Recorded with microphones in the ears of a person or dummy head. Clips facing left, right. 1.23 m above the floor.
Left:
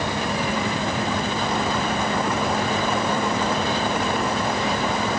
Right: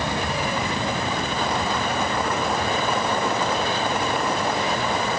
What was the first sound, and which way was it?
Only background noise.